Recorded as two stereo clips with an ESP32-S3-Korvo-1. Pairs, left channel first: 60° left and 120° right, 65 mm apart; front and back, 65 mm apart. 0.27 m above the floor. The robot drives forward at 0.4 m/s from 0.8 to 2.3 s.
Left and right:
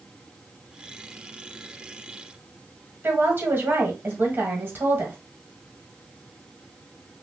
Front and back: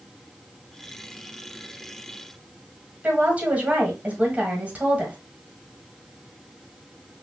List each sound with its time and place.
3.0 s a woman speaking: 135° right, 1.5 m